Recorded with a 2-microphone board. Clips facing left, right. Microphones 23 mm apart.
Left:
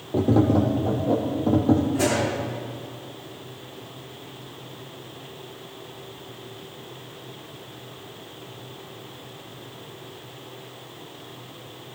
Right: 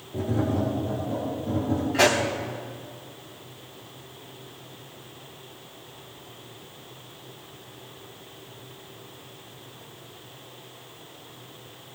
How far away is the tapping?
About 3 m.